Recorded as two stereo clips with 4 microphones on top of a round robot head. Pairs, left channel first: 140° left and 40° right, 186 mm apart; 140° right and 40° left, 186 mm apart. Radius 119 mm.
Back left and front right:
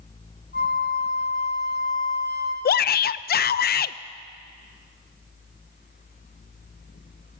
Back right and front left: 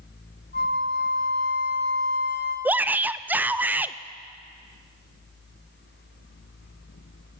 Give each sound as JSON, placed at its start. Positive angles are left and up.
{"t": 0.5, "sound": "a flute", "azimuth_deg": 180, "distance_m": 1.5}
{"t": 2.6, "sound": "a shout", "azimuth_deg": 120, "distance_m": 0.5}